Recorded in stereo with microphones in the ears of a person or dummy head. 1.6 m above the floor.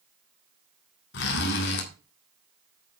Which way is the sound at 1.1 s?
55° left (ahead or behind).